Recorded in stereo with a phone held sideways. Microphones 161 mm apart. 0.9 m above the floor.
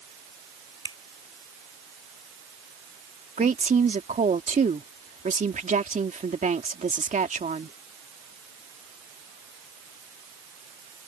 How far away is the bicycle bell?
No bicycle bell in this recording.